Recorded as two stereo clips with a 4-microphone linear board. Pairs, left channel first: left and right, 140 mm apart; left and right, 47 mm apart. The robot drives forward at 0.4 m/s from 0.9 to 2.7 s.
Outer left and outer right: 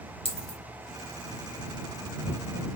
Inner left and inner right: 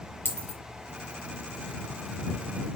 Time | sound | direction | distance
0.2 | a dropped coin | 40° left (ahead or behind) | 1.3 m